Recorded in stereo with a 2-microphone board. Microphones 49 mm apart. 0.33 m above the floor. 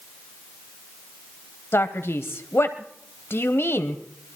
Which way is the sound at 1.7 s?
50° left (ahead or behind).